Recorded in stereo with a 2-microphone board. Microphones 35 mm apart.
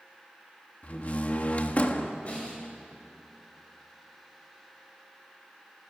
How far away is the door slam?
About 1.4 m.